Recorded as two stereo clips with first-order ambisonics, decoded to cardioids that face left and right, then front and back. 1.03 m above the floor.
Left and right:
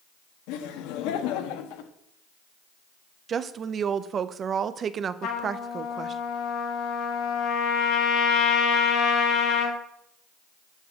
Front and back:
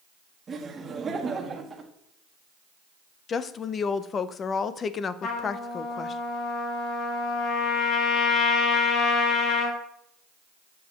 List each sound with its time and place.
0.5 s laughter: 110° left, 1.4 m
3.3 s a woman speaking: 45° right, 0.6 m
5.2 s a trumpet: 50° left, 1.9 m